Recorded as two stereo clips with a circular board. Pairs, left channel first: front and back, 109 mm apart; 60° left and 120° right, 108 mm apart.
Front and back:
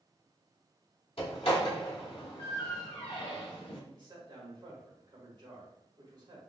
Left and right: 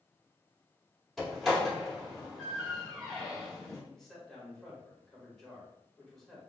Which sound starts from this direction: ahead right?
A door slam, at 1.2 s.